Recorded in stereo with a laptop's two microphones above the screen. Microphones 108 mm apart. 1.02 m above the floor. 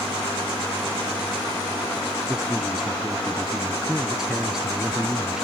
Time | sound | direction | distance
2.3 | a man speaking | 5° right (ahead or behind) | ?